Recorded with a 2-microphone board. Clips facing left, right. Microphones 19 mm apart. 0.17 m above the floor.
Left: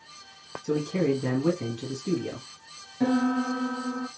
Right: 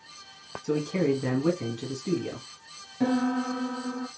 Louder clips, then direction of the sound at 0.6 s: Even; 35° right (ahead or behind).